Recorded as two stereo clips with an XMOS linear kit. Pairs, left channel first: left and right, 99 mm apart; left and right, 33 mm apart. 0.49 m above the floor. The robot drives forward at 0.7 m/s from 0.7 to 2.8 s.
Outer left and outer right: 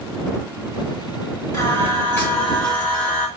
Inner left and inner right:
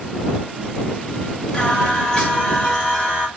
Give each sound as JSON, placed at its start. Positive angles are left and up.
{"t": 1.5, "sound": "singing", "side_deg": 30, "distance_m": 1.2}